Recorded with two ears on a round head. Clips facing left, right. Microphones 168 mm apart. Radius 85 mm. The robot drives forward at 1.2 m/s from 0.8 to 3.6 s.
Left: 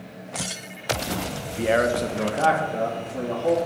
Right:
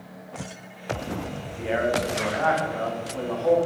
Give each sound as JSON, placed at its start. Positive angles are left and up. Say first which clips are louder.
{"t": 1.6, "sound": "a man speaking", "louder": "left 3 dB", "side_deg": 65, "distance_m": 0.9}